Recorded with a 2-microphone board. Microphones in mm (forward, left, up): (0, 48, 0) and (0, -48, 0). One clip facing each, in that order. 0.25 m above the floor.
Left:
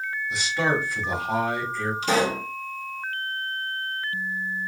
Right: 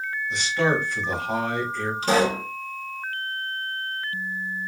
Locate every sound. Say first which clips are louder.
0.3 s a man speaking: right 2 dB; 5° left (ahead or behind), 1.0 m
2.0 s a pop: right 3 dB; 45° right (ahead or behind), 1.3 m